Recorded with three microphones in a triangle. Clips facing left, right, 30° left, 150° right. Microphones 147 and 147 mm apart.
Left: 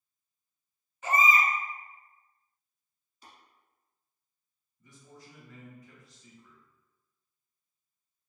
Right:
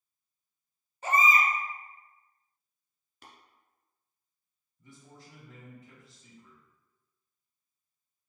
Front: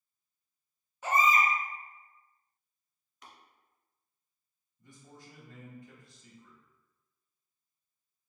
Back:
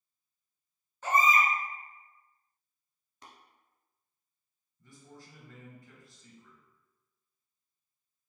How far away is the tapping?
About 0.9 m.